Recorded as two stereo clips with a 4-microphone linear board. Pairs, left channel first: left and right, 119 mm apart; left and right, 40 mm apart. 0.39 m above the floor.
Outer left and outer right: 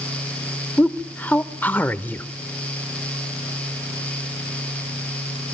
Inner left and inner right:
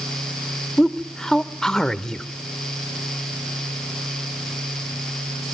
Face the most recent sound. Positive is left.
turn(degrees=15)  # may be behind; listen again after turning